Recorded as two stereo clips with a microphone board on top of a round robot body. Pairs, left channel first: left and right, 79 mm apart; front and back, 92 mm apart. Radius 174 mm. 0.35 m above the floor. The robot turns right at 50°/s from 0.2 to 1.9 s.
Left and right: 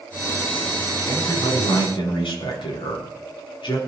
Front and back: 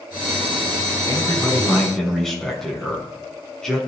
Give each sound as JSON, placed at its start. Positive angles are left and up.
{"t": 1.1, "sound": "a man speaking", "azimuth_deg": 45, "distance_m": 6.5}